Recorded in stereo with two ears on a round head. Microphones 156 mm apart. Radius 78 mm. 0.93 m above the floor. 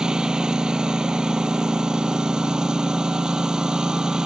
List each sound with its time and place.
0.0 s a lawn mower: 5° right (ahead or behind)